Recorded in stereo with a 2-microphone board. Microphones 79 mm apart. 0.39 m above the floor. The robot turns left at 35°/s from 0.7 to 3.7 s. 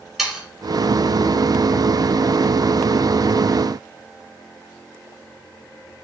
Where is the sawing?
5° right (ahead or behind), 5 m.